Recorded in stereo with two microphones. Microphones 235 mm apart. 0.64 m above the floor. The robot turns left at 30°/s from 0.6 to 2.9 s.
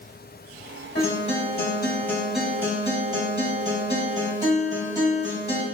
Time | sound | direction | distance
0.9 | a guitar | 40° left | 1.0 m